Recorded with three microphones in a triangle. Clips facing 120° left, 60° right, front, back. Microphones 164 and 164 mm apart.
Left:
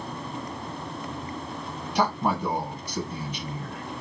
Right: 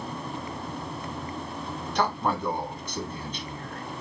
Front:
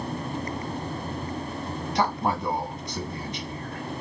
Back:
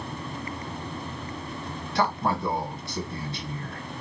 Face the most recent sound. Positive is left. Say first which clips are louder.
# left 2 dB, even
turn(degrees=50)